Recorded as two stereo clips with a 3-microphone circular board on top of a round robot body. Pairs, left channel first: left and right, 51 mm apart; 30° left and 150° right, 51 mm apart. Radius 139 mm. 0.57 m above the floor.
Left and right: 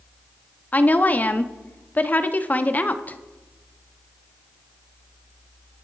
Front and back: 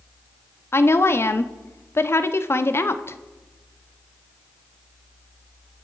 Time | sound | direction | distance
0.7 | a woman speaking | 40° left | 1.2 m